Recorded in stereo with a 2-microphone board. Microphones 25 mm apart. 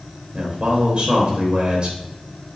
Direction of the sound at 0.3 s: 45° right (ahead or behind).